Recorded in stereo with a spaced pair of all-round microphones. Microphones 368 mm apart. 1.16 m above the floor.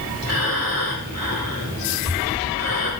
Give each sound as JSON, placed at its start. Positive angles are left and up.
{"t": 0.2, "sound": "breathing", "side_deg": 45, "distance_m": 4.5}